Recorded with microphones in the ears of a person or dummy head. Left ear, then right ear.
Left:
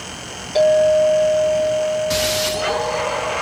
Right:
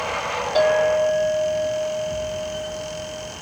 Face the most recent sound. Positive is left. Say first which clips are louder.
# left 5 dB
turn(degrees=-5)  # may be behind; listen again after turning